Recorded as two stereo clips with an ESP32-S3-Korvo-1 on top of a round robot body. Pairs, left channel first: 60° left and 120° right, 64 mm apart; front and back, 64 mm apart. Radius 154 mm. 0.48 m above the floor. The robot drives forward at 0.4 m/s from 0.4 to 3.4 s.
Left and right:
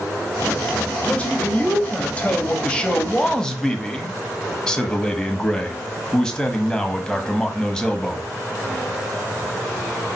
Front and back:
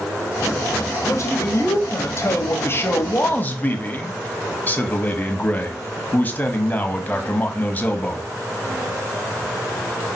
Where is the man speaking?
5° right, 1.8 m; by 8.3 s 10° right, 1.2 m.